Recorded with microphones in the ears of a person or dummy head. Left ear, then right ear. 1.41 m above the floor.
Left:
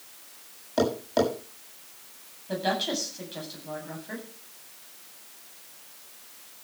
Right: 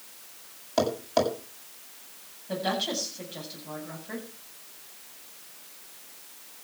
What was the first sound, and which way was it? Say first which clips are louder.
Tapping: even; 15° right (ahead or behind).